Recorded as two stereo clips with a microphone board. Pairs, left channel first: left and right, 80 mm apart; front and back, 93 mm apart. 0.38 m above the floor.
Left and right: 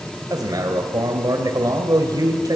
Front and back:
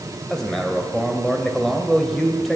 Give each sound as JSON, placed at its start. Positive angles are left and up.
{"t": 0.3, "sound": "a man speaking", "azimuth_deg": -85, "distance_m": 2.0}